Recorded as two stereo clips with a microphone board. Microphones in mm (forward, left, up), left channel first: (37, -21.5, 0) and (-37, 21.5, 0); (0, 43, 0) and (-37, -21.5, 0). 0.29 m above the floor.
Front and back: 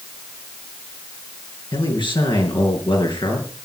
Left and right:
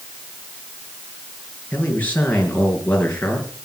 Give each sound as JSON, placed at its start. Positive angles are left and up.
{"t": 1.7, "sound": "a man speaking", "azimuth_deg": -5, "distance_m": 5.5}